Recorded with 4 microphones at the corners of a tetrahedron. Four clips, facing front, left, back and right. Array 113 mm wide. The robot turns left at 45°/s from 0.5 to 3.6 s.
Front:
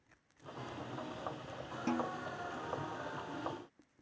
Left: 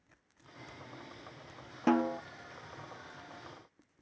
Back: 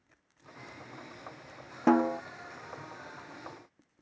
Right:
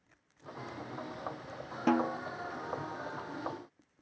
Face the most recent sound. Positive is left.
turn(degrees=105)